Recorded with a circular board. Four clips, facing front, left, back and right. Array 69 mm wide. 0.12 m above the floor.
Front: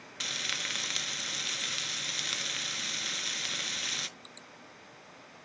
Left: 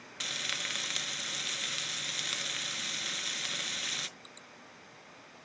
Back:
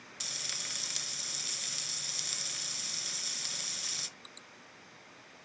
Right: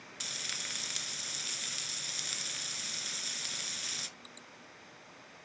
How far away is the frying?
About 0.6 m.